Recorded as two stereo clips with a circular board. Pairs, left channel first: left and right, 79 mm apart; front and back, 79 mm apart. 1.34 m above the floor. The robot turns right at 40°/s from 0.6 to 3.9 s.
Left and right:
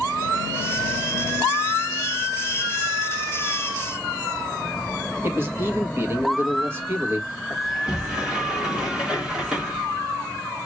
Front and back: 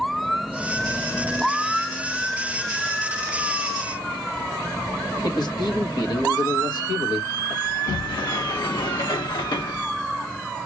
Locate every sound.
5.2 s a man speaking: 30° right, 1.6 m
7.6 s a sliding door: 10° right, 1.9 m